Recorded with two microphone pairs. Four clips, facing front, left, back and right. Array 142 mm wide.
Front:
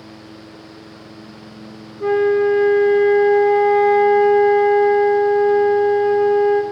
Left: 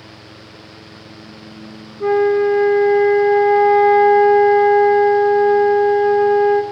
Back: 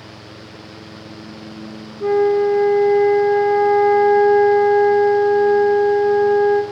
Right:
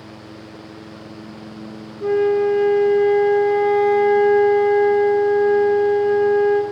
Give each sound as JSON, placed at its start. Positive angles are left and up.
{"t": 2.0, "sound": "a flute", "azimuth_deg": 80, "distance_m": 1.2}